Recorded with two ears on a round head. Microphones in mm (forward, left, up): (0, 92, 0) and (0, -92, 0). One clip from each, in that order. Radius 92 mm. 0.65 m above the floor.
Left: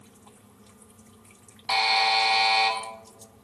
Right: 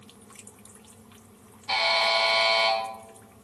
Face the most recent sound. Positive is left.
turn(degrees=20)  # may be behind; listen again after turning